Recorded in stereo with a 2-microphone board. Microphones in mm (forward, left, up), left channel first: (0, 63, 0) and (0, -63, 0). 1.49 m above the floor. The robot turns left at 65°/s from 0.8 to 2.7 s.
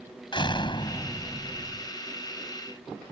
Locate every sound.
0.3 s a door slam: 40° left; by 1.9 s 35° right